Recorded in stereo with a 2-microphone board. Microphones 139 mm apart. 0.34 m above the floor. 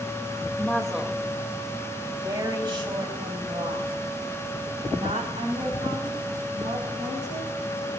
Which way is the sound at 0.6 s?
10° left (ahead or behind).